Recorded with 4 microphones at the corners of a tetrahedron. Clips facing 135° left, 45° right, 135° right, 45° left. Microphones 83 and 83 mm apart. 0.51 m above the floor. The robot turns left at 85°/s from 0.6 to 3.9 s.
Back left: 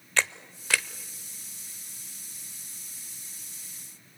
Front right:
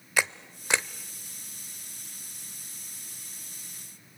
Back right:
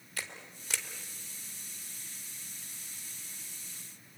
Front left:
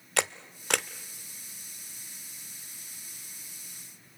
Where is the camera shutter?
35° left, 0.6 m; by 0.9 s 10° left, 0.6 m.